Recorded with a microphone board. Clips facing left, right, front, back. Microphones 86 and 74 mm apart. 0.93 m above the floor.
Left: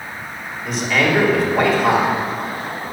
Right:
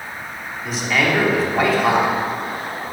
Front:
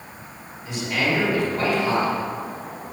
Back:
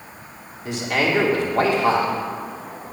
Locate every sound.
0.7 s a man speaking: straight behind, 2.5 m